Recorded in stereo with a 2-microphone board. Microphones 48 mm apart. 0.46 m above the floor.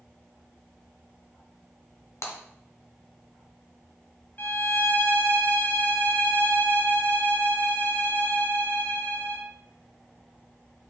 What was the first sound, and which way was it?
Breaking glass, 80° left.